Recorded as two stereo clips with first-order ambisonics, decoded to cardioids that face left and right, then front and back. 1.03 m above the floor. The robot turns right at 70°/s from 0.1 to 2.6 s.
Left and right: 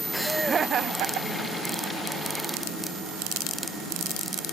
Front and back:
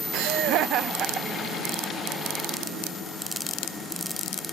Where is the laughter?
170° left, 0.6 m; by 1.9 s 65° right, 0.6 m.